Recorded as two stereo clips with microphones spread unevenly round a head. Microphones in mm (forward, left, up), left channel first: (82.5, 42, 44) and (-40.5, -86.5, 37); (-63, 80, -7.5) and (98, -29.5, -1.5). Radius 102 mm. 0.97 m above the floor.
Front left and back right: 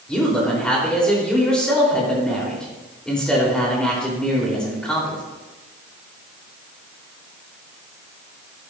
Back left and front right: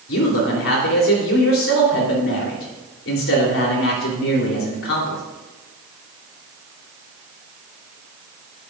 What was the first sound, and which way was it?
A man speaking, 130° left.